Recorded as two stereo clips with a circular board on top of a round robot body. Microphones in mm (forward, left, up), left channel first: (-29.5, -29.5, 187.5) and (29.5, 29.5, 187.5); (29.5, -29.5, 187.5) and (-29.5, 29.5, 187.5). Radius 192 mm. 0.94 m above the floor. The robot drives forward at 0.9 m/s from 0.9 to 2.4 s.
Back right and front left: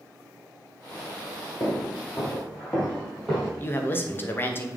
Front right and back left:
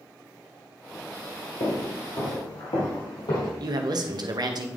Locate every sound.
1.6 s footsteps: 65° right, 1.6 m; by 3.5 s 40° right, 3 m
3.6 s a man speaking: 165° left, 1.0 m